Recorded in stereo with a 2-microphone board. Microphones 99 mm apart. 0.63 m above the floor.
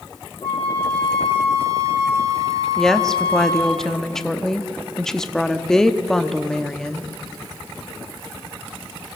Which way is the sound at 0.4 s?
75° left (ahead or behind).